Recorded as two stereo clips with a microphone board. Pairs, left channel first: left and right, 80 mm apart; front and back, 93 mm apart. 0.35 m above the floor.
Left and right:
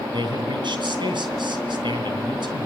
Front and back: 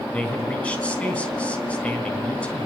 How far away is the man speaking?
About 3.5 m.